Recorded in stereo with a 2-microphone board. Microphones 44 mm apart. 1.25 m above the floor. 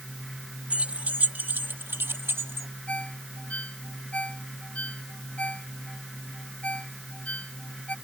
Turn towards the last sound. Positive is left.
turn(degrees=30)  # may be behind; listen again after turning